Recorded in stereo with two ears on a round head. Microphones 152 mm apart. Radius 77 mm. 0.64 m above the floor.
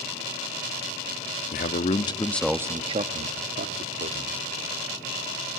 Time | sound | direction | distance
1.5 | a man speaking | 50° left (ahead or behind) | 0.9 m